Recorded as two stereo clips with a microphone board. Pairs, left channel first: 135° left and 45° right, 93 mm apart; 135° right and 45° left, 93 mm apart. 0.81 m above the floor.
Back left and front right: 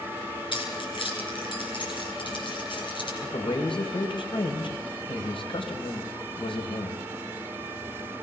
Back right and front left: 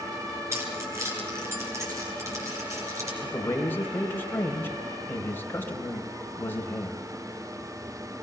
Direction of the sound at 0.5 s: 105° left.